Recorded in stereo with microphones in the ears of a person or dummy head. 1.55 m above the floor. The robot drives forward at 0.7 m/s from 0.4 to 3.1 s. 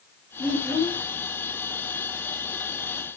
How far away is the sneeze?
No sneeze in this recording.